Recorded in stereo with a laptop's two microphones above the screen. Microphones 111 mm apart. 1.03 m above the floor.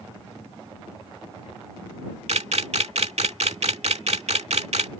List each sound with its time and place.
2.3 s a camera shutter: 75° right (ahead or behind)